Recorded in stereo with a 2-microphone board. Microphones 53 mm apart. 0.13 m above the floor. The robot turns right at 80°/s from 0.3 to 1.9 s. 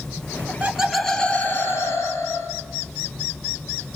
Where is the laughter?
45° right, 2.5 m; by 2.5 s 75° left, 2.5 m.